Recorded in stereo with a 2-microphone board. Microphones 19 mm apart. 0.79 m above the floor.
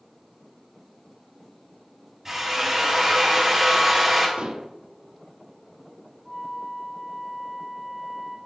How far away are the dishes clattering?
About 0.7 m.